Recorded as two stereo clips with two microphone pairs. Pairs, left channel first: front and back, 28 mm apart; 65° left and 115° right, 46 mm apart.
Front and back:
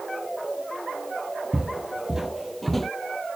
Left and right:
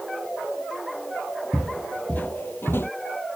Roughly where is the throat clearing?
I don't hear throat clearing.